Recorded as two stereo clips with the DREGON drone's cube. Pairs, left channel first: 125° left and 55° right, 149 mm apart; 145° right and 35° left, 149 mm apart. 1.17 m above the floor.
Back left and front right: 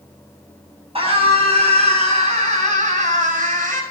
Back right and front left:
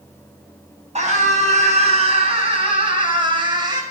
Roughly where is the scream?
Ahead.